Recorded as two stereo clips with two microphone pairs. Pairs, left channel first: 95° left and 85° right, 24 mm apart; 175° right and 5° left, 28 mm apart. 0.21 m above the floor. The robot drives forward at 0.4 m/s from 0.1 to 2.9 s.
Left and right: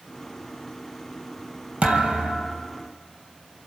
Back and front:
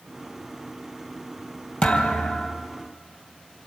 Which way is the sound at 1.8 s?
125° right.